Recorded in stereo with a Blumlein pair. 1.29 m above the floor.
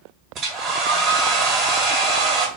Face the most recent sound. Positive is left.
turn(degrees=-30)